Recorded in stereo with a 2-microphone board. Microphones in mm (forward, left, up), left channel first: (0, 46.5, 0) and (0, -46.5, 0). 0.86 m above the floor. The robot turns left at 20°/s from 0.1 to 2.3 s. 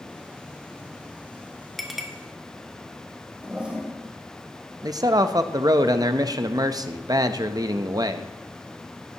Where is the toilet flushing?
10° right (ahead or behind), 1.6 m.